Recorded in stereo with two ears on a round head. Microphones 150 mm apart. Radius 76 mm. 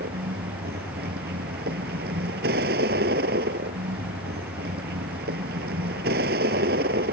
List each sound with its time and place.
0.0 s a vehicle: 60° right (ahead or behind)